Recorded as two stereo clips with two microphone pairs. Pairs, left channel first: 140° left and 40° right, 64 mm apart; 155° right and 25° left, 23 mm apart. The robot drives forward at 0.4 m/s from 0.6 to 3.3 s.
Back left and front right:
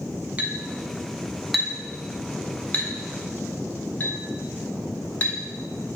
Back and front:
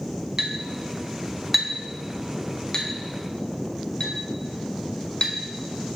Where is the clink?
20° right, 0.8 m; by 5.3 s 170° right, 1.0 m.